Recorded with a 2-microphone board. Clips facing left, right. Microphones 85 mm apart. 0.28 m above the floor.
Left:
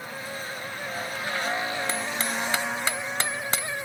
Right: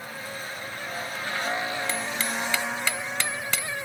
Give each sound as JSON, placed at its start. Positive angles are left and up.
{"t": 1.9, "sound": "hammering", "side_deg": 35}